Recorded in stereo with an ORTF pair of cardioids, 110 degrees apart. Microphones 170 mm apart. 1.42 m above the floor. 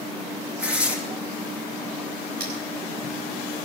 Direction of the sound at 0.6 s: 5° right.